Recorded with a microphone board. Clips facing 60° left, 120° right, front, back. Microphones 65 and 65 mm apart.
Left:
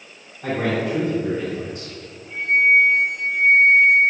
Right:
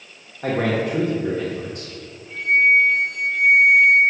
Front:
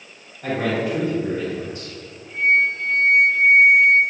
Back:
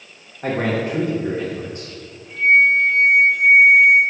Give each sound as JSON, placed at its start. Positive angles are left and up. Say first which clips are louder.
{"t": 0.4, "sound": "a man speaking", "louder": "right 1 dB, back 1 dB", "azimuth_deg": -140, "distance_m": 1.8}
{"t": 2.3, "sound": "a flute", "louder": "even, back 4 dB", "azimuth_deg": -120, "distance_m": 2.5}